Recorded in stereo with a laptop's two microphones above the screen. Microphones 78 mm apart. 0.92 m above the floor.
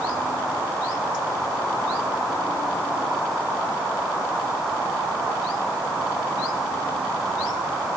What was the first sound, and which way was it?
Only background noise.